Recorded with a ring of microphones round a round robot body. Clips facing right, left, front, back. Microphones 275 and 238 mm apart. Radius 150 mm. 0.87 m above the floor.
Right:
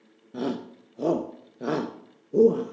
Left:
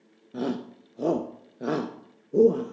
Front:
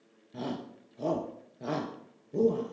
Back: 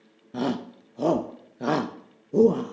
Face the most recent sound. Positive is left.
turn(degrees=180)